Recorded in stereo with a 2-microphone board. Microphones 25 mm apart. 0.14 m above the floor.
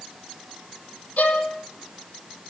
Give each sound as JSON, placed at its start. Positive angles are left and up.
{"t": 1.2, "sound": "a violin", "side_deg": 75, "distance_m": 4.0}